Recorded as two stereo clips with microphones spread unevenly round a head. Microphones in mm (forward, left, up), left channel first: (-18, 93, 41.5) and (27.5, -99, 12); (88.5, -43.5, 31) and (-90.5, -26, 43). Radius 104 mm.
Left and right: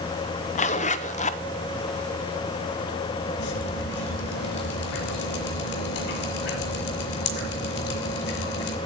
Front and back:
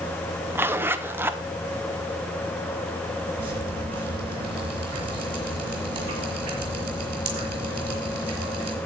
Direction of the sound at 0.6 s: 100° left.